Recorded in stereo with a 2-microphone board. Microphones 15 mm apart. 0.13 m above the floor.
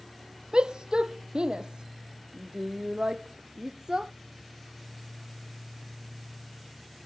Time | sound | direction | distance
0.5 | a shout | 70° right (ahead or behind) | ?